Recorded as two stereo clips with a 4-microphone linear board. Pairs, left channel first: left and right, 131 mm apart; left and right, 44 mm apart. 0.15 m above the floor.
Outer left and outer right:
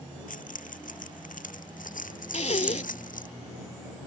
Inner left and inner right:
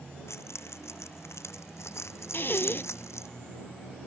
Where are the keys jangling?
75° left (ahead or behind); by 3.3 s 80° left.